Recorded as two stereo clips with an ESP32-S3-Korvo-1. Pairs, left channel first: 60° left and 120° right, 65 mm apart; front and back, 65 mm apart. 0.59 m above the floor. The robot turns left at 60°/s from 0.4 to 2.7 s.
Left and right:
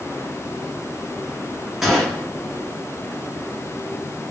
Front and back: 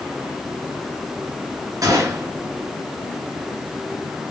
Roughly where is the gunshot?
Behind left.